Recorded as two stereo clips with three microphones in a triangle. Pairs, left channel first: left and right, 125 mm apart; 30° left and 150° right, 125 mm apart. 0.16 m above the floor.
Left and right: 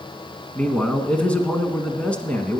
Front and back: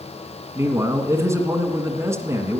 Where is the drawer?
No drawer in this recording.